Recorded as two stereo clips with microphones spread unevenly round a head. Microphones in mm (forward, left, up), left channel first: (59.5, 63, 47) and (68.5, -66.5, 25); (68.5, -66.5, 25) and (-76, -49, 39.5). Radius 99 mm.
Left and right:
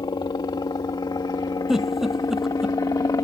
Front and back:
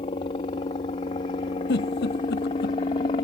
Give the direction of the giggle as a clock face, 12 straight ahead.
12 o'clock.